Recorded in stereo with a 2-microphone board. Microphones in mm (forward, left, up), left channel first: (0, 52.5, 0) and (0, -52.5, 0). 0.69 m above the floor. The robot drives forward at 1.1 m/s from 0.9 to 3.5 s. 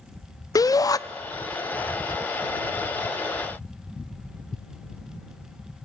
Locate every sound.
0.6 s a shout: 35° left (ahead or behind), 0.5 m